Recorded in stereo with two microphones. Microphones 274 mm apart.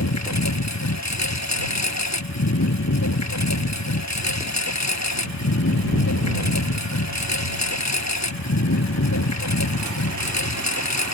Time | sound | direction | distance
0.0 | a lawn mower | 80° left | ?